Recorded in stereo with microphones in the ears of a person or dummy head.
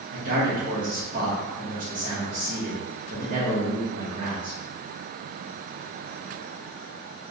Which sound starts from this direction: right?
A man speaking, at 0.1 s.